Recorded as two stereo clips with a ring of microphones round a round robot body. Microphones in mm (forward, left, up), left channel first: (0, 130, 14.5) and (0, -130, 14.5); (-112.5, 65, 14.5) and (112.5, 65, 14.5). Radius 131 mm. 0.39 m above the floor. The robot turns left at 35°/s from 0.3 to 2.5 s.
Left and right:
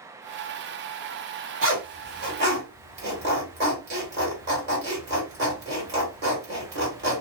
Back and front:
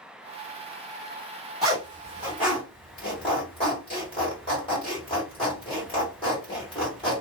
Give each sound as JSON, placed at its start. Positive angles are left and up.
{"t": 1.6, "sound": "a zipper", "azimuth_deg": -90, "distance_m": 1.9}